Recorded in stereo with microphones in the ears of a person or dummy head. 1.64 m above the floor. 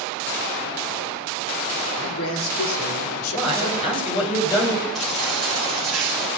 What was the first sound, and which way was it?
A man speaking, 75° left (ahead or behind).